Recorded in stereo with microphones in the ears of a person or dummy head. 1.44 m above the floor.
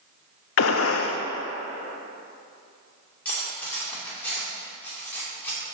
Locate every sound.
0.6 s a gunshot: 70° left (ahead or behind), 0.6 m
3.2 s cutlery clinking: 10° left (ahead or behind), 2.5 m